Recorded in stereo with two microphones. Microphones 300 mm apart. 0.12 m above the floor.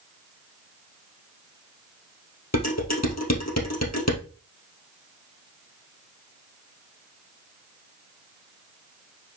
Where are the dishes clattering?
60° left (ahead or behind), 2.5 m.